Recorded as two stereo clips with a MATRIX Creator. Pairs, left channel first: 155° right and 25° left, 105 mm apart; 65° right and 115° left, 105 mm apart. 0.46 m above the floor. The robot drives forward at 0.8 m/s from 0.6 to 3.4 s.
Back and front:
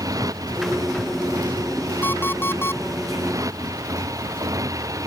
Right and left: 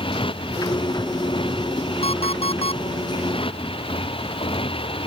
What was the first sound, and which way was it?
A motorcycle, 35° right.